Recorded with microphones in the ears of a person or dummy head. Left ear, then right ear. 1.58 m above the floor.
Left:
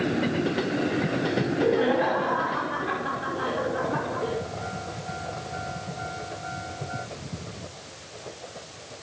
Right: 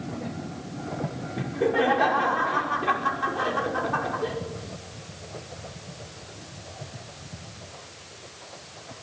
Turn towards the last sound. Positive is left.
turn(degrees=-40)  # may be behind; listen again after turning